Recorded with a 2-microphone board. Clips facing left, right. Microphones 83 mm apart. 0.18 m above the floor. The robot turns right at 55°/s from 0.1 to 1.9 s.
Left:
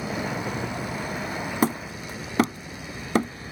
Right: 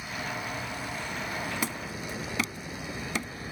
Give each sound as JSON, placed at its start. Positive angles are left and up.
{"t": 0.0, "sound": "a vehicle", "azimuth_deg": 85}
{"t": 1.6, "sound": "hammering", "side_deg": 45}